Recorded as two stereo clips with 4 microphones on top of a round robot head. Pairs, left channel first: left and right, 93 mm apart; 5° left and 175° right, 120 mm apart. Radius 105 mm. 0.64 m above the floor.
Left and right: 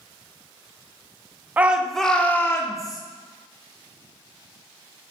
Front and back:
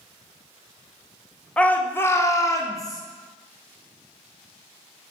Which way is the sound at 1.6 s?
55° right.